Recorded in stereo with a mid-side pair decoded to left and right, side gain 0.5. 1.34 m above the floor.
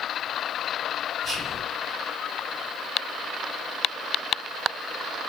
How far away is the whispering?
About 1.3 m.